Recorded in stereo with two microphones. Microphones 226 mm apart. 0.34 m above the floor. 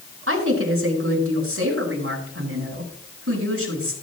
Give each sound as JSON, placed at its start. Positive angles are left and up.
{"t": 0.3, "sound": "a woman speaking", "side_deg": -75, "distance_m": 4.5}